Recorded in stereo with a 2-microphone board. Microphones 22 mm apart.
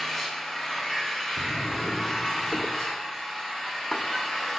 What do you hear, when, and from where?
0.0 s an engine running: 25° left (ahead or behind), 2.5 m
1.4 s a drawer: 10° left (ahead or behind), 0.7 m